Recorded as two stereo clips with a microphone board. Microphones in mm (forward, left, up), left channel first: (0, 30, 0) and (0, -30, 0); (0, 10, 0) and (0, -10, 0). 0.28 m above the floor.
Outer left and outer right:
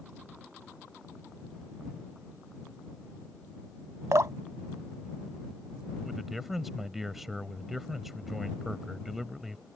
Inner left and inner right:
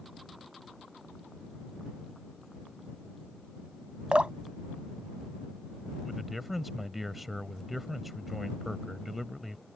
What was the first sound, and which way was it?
Dripping, 60° right (ahead or behind).